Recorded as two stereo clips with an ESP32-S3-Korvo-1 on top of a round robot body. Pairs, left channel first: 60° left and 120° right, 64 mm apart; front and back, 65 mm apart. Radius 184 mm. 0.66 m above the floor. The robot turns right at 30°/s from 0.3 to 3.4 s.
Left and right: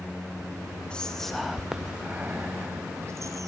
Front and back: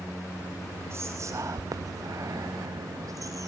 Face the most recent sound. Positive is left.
turn(degrees=-150)